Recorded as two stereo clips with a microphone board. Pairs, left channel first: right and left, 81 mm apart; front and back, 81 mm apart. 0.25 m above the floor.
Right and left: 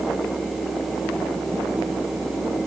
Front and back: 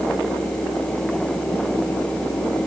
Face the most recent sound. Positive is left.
No sound to turn to.